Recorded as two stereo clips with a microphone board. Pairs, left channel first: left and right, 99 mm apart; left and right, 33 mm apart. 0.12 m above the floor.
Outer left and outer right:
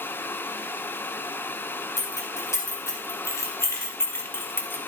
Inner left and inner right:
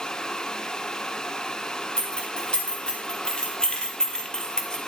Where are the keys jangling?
30° left (ahead or behind), 3 m; by 4.8 s 20° left (ahead or behind), 1.4 m.